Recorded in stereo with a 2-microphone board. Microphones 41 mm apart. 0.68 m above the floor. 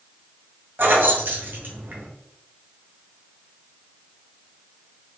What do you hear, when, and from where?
0.8 s keys jangling: 55° right (ahead or behind), 0.9 m